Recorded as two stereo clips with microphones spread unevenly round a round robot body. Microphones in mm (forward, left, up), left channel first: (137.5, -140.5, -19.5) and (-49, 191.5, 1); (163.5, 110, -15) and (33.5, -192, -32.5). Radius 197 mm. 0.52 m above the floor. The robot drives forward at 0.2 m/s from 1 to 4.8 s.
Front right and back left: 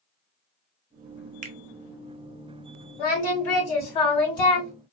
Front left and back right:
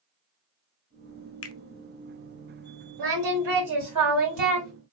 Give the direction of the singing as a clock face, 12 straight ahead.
3 o'clock.